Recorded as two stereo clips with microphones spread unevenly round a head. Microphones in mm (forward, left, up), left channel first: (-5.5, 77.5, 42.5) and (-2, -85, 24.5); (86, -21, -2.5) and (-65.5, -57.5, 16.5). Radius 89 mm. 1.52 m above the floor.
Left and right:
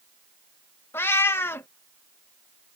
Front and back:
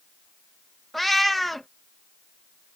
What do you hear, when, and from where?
0.9 s a cat meowing: 120° left